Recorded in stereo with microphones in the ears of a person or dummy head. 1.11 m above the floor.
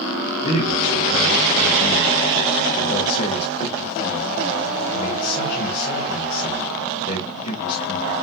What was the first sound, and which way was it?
A man speaking, 35° left (ahead or behind).